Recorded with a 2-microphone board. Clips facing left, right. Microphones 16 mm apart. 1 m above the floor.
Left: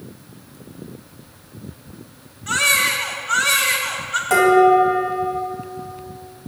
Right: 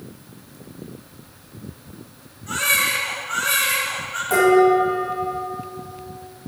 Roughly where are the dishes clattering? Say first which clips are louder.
Left 2 dB; left.